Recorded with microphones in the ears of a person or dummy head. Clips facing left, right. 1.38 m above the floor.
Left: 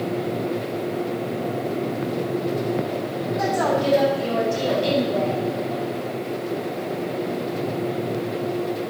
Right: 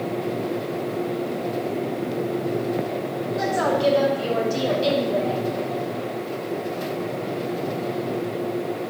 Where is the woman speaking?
50° right (ahead or behind), 8 m; by 5.4 s 60° right (ahead or behind), 6 m.